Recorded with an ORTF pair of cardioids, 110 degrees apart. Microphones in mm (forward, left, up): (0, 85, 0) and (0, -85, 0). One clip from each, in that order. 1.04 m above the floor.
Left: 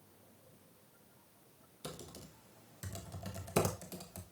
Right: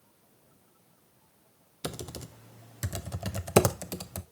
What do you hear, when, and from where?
1.8 s typing on a keyboard: 50° right, 0.6 m